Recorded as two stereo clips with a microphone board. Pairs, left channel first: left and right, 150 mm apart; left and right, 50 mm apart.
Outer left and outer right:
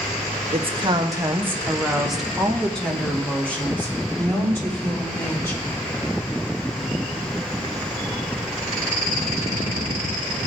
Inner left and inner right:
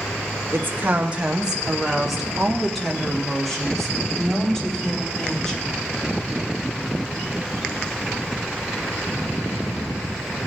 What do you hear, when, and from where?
0.5 s a woman speaking: 45° right (ahead or behind), 0.8 m; by 5.7 s 20° left (ahead or behind), 3.5 m